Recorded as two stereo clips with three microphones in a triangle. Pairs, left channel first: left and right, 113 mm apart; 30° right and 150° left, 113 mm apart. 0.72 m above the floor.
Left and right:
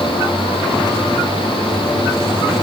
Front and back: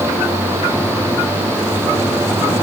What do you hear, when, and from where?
Only background noise.